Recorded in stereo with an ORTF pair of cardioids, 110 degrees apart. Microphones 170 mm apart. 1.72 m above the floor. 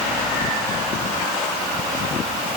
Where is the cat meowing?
I don't hear a cat meowing.